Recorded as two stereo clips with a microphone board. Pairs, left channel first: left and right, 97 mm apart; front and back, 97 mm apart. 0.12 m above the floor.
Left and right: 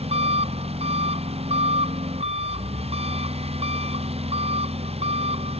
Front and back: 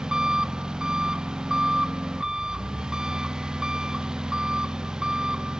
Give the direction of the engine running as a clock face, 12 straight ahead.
3 o'clock.